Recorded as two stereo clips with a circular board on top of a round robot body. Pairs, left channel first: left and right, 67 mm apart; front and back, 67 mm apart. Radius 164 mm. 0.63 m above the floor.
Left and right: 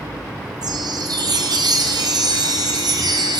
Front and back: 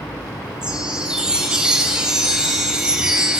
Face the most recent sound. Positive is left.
turn(degrees=-100)